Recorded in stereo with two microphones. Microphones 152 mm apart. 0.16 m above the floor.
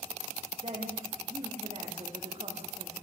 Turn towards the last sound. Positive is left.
turn(degrees=-40)  # may be behind; listen again after turning